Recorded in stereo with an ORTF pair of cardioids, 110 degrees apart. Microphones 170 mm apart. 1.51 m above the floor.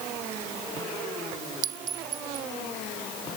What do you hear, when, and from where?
1.6 s a clink: 55° right